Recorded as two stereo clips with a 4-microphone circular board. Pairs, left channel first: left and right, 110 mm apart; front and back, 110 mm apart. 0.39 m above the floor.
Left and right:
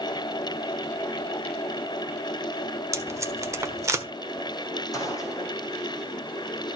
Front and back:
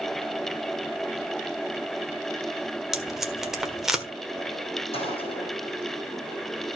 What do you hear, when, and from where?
2.9 s tape being pulled: 100° right, 1.3 m
4.9 s a gunshot: 30° left, 3 m